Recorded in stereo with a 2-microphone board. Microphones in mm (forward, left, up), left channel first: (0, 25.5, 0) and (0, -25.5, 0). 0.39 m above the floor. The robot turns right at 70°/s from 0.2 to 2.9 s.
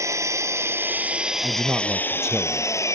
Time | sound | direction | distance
0.0 | an engine running | 90° right | ?
1.4 | a man speaking | 70° right | ?